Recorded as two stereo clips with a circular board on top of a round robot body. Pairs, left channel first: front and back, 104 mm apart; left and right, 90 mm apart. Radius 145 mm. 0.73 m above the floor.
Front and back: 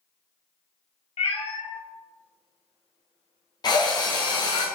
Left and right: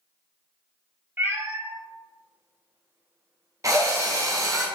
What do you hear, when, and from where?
1.2 s a cat meowing: 25° right, 0.9 m
3.6 s a drill: 40° right, 1.1 m